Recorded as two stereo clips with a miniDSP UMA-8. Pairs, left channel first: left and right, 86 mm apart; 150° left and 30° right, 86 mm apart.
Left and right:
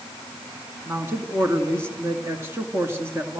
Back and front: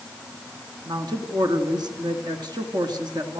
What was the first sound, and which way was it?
A woman speaking, 35° right.